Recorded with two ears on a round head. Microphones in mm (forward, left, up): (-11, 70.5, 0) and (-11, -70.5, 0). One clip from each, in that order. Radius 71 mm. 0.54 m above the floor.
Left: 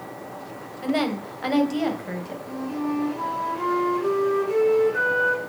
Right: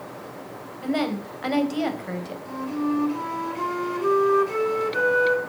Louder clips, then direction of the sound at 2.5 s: Right 2 dB; 45° right (ahead or behind).